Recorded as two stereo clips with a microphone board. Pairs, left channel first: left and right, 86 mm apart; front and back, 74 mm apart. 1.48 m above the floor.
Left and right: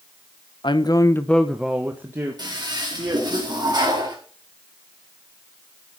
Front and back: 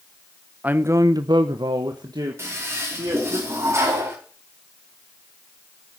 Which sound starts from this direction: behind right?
A toilet flushing, at 2.4 s.